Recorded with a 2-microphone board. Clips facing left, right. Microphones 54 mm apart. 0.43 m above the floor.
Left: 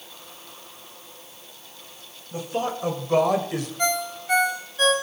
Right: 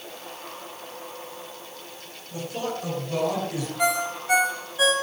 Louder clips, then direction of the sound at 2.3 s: Left 3 dB; 35° left (ahead or behind).